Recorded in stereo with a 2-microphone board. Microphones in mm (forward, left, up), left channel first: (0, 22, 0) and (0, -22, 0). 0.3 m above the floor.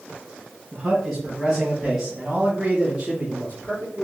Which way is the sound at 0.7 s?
10° right (ahead or behind).